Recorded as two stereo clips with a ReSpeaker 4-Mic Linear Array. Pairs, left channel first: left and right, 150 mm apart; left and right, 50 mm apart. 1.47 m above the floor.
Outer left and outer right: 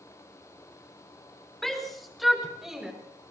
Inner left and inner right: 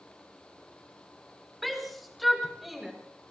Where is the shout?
Centre (ahead or behind), 4 m; by 2.9 s 5° right (ahead or behind), 5.5 m.